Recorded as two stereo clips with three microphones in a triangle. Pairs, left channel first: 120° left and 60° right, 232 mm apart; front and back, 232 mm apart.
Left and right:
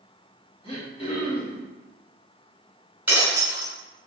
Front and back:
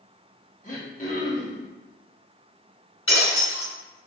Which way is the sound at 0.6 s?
55° left.